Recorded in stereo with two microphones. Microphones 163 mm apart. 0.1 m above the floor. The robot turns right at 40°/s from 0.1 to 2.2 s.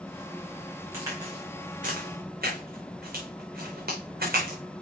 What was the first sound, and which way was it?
A crack, 15° right (ahead or behind).